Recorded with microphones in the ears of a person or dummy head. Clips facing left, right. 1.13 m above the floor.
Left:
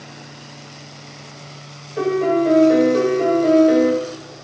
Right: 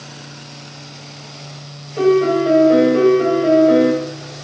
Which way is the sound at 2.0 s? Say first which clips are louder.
Right 4 dB; 5° left (ahead or behind).